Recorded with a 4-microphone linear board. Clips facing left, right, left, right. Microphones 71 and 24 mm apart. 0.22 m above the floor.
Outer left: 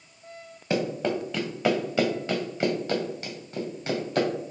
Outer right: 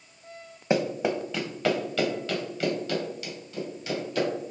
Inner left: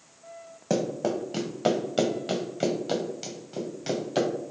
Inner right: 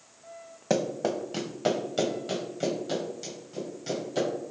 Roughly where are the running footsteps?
Right.